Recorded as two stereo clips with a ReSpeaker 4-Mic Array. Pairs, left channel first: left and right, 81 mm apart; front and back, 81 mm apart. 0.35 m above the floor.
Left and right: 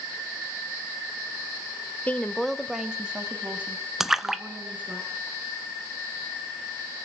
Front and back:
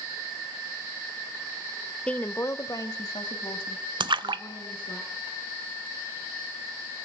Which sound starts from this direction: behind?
A splash, at 4.0 s.